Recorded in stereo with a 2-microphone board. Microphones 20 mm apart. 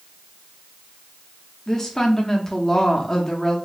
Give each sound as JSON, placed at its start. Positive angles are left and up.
{"t": 1.7, "sound": "a woman speaking", "side_deg": 25, "distance_m": 0.6}